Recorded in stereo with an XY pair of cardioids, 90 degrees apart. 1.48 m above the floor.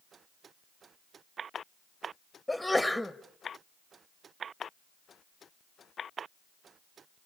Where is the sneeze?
5° left, 1.6 m.